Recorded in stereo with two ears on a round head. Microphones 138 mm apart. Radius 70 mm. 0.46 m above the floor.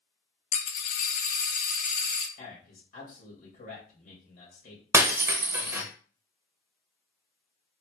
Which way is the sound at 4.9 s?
15° right (ahead or behind).